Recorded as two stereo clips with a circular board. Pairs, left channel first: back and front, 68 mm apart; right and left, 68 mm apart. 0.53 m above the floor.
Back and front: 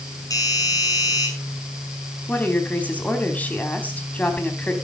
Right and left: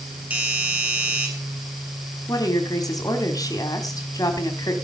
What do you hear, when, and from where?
0.3 s a doorbell: 155° left, 7.5 m
2.3 s a woman speaking: 110° right, 4 m